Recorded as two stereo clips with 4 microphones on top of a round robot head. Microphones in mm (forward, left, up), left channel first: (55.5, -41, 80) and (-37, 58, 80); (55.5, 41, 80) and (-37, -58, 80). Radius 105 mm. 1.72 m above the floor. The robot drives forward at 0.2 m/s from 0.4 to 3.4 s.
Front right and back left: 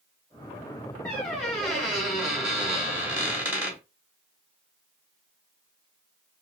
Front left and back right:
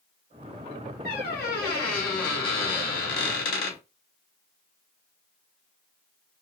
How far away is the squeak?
About 1.3 m.